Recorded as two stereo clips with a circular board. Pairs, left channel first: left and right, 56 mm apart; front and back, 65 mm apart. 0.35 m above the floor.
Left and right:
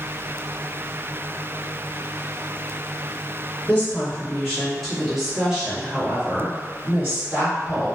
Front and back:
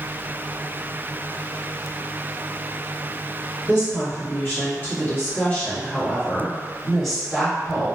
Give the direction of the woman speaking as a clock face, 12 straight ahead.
11 o'clock.